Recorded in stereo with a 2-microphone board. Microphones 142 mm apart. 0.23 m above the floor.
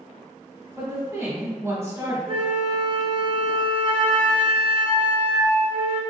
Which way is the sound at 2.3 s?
45° right (ahead or behind).